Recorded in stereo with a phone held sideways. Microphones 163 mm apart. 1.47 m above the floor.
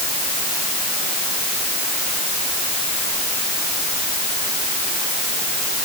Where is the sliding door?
I don't hear a sliding door.